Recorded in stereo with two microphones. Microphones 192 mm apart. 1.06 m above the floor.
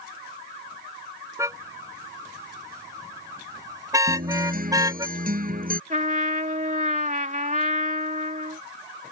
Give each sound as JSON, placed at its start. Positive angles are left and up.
{"t": 1.4, "sound": "a car horn", "side_deg": -15}
{"t": 4.1, "sound": "a guitar", "side_deg": -50}
{"t": 5.9, "sound": "a trumpet", "side_deg": -45}